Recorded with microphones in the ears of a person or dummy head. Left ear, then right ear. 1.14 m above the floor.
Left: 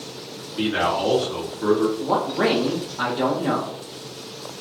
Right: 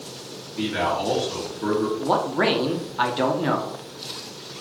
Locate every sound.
0.6 s a man speaking: 15° left (ahead or behind), 2 m
2.0 s a man speaking: 30° right (ahead or behind), 0.7 m